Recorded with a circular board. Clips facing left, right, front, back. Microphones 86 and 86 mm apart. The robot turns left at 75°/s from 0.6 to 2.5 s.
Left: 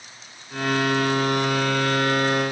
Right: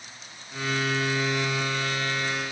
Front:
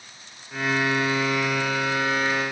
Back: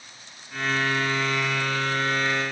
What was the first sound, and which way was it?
Only background noise.